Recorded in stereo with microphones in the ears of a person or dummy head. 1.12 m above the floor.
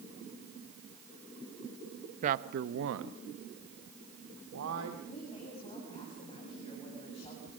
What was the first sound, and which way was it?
A man speaking, 40° right (ahead or behind).